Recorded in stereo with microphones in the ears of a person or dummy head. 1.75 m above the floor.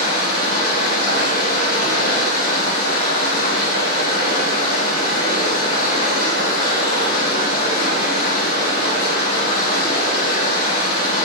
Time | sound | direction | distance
0.0 | running water | 60° left (ahead or behind) | 2.0 m